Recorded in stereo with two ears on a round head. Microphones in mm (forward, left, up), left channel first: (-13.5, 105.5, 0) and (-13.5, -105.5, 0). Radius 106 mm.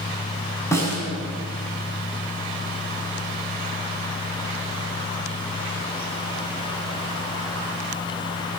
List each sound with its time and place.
0.7 s a snare drum: 10° left (ahead or behind), 7.5 m